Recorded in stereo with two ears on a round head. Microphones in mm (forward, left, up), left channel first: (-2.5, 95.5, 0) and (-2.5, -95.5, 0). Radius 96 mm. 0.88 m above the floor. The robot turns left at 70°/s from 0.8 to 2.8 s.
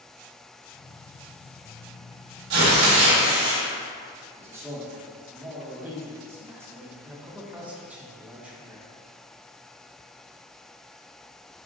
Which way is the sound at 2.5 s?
65° right (ahead or behind).